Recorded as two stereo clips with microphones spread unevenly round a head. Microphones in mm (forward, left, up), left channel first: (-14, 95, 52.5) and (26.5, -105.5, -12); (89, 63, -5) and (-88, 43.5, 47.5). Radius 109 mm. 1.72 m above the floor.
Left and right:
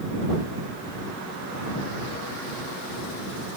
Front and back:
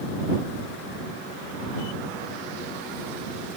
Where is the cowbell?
I don't hear a cowbell.